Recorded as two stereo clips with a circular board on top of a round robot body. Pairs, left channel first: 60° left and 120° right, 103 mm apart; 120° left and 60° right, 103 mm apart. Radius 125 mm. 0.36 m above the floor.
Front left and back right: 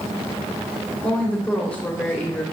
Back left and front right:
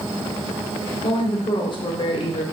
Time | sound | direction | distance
1.0 | a woman speaking | 135° left | 2 m